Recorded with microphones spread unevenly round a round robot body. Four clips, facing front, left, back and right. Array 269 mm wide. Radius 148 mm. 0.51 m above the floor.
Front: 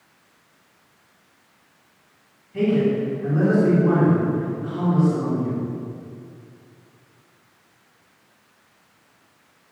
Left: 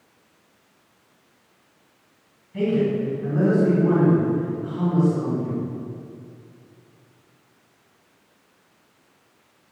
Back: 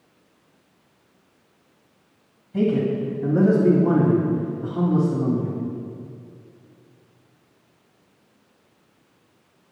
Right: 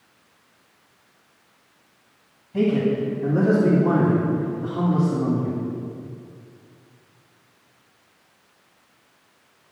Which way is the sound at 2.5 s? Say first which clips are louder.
Right 1 dB, front 1 dB; 165° right.